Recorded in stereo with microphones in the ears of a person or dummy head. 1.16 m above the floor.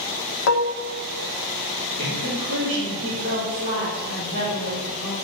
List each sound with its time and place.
0.5 s dishes clattering: 75° left (ahead or behind), 0.6 m
2.0 s a woman speaking: 65° right (ahead or behind), 3.5 m